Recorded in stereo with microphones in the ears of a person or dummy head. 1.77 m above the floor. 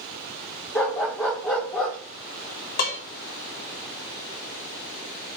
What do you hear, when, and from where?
0.8 s a dog barking: 5° left (ahead or behind), 1.2 m
2.8 s dishes clattering: 55° left (ahead or behind), 3 m